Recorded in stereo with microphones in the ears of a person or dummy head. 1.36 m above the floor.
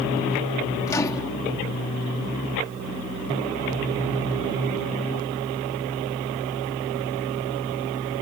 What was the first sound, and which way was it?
A microwave, 20° left (ahead or behind).